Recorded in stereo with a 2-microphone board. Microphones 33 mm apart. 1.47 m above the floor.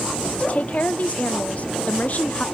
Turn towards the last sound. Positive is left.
turn(degrees=45)  # may be behind; listen again after turning